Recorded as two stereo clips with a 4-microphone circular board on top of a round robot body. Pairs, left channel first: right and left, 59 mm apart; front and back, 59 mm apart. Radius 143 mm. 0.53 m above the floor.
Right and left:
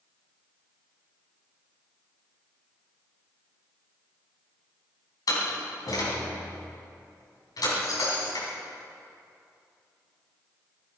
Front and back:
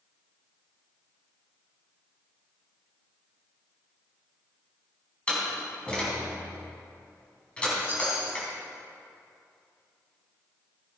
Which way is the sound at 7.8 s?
120° right.